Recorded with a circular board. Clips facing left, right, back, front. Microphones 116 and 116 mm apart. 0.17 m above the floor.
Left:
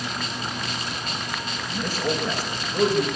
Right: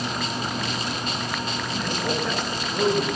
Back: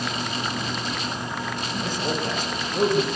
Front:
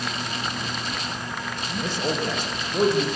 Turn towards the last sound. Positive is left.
turn(degrees=5)